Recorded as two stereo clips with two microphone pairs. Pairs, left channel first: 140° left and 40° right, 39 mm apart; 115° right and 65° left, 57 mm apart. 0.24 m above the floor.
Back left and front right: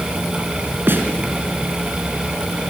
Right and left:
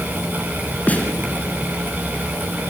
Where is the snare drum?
55° right, 2.5 m.